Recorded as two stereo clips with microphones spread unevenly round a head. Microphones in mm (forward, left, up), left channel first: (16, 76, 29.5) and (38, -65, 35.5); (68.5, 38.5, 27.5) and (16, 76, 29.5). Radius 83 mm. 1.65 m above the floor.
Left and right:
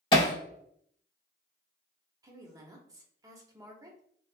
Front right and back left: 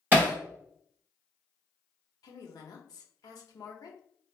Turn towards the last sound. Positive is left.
turn(degrees=-15)